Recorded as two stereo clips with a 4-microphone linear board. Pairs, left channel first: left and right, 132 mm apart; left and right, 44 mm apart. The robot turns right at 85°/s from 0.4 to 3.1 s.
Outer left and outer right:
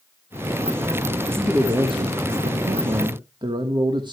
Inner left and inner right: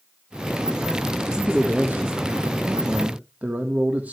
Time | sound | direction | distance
1.4 | a man speaking | 175° left | 1.4 m